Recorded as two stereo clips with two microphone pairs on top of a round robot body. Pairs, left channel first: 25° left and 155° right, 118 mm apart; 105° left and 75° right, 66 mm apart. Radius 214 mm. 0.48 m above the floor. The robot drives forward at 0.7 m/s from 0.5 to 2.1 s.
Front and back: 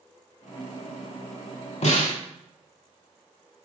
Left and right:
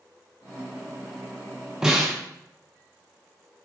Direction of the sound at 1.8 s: 5° left.